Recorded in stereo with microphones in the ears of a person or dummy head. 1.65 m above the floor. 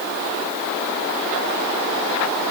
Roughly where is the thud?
I don't hear a thud.